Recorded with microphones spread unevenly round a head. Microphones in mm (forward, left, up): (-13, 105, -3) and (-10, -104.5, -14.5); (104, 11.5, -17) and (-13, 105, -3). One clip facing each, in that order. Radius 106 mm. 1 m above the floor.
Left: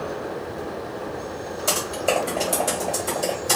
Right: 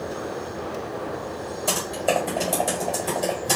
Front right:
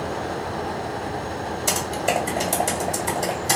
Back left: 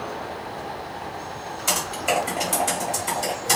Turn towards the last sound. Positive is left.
turn(degrees=10)